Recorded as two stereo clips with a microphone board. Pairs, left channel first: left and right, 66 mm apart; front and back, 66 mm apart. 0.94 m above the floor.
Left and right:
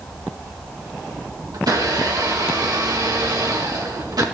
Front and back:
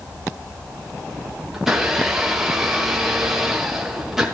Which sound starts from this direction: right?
A blender, at 1.5 s.